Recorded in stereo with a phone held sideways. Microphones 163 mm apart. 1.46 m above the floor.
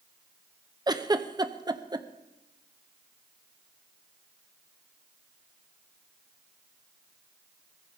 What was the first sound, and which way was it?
A giggle, 25° right (ahead or behind).